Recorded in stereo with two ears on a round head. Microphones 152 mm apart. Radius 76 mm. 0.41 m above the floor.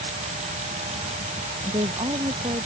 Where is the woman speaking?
25° right (ahead or behind).